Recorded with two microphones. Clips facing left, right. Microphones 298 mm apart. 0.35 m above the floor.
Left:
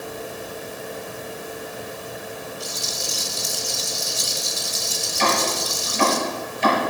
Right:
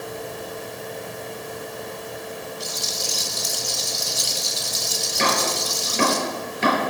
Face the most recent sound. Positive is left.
turn(degrees=-75)  # may be behind; listen again after turning